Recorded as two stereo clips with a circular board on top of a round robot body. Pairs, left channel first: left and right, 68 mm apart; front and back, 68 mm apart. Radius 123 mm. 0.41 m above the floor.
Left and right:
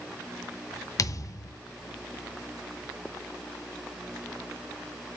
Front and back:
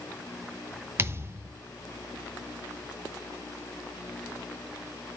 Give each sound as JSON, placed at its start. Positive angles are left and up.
{"t": 1.0, "sound": "a thud", "azimuth_deg": 125, "distance_m": 1.0}